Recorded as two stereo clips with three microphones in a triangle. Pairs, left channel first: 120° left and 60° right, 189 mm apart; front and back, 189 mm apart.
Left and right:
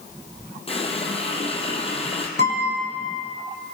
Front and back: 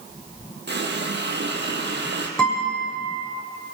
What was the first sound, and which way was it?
A running tap, 175° left.